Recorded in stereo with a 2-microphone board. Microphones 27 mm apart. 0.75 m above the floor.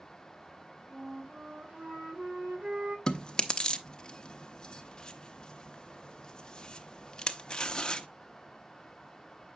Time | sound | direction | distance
0.9 | a flute | 75° right (ahead or behind) | 1.8 m
3.1 | chewing | 30° left (ahead or behind) | 0.6 m